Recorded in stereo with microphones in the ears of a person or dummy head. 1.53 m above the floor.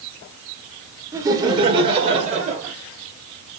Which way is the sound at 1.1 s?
15° right (ahead or behind).